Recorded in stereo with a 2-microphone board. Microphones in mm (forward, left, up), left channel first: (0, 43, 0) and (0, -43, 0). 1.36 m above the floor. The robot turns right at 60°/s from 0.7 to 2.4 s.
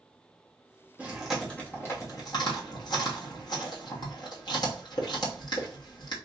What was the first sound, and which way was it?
Chewing, 15° right (ahead or behind).